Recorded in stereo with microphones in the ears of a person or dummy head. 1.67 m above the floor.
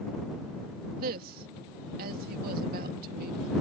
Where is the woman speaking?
45° right (ahead or behind).